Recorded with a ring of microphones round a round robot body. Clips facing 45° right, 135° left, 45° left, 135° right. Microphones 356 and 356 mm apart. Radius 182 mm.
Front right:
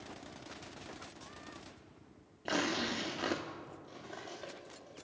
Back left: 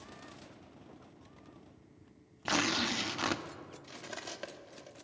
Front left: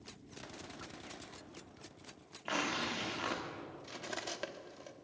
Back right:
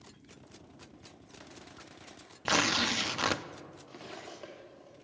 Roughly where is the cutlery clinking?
Left.